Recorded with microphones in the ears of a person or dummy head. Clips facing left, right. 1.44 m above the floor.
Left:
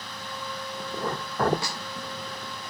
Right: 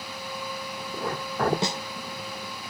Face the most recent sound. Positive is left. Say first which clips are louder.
# right 7 dB
turn(degrees=-25)  # may be behind; listen again after turning